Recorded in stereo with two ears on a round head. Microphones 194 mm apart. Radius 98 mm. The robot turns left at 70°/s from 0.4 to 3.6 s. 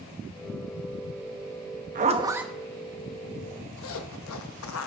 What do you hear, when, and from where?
1.9 s a zipper: 40° right (ahead or behind), 1.0 m; by 4.9 s 75° left (ahead or behind), 1.0 m